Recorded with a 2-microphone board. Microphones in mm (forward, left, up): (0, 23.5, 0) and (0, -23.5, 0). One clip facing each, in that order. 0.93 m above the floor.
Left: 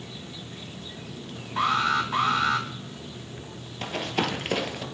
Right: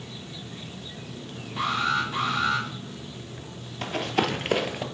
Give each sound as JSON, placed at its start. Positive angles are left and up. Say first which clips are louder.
{"t": 1.6, "sound": "an alarm", "louder": "left 2 dB", "side_deg": 70, "distance_m": 2.5}
{"t": 3.8, "sound": "running footsteps", "louder": "right 2 dB", "side_deg": 0, "distance_m": 1.0}